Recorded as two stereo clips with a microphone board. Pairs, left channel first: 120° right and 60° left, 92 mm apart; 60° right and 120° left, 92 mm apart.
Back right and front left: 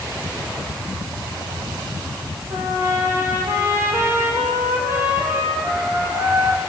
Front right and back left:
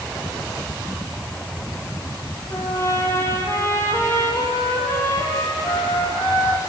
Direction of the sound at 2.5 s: Straight ahead.